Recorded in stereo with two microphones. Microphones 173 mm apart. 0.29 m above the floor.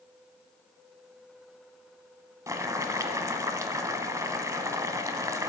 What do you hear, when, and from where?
2.5 s boiling: 15° right (ahead or behind), 0.9 m